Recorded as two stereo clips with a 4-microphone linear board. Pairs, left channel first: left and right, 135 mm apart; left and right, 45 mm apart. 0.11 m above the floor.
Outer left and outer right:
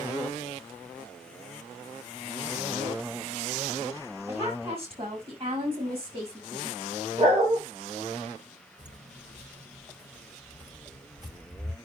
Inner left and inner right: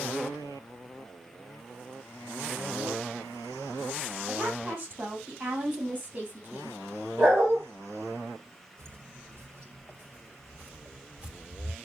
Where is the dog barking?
55° right (ahead or behind), 6.5 m.